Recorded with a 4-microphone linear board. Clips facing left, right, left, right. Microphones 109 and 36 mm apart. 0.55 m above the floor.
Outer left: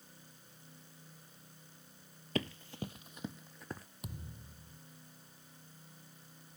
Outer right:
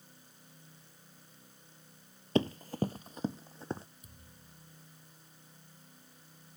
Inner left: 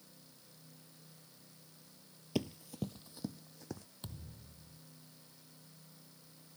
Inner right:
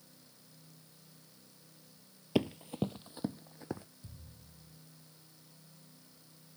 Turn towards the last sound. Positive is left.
turn(degrees=75)  # may be behind; listen again after turning